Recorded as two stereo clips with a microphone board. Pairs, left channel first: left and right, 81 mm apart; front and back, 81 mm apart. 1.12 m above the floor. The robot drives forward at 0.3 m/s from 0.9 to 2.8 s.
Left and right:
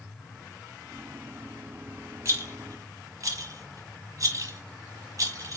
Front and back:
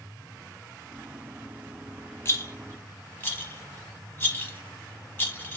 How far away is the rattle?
About 0.9 m.